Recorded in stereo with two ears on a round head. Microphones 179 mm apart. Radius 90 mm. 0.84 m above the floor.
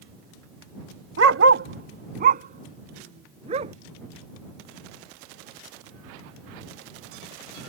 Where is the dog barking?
65° right (ahead or behind); by 3.7 s 35° right (ahead or behind).